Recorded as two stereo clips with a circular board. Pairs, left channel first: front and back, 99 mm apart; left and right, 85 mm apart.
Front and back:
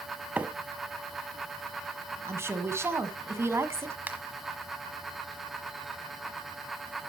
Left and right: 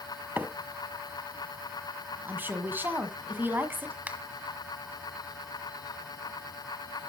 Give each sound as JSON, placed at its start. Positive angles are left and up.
{"t": 0.4, "sound": "a microwave", "azimuth_deg": -125, "distance_m": 0.9}
{"t": 2.2, "sound": "a woman speaking", "azimuth_deg": -135, "distance_m": 1.5}
{"t": 4.1, "sound": "a finger snap", "azimuth_deg": -135, "distance_m": 1.3}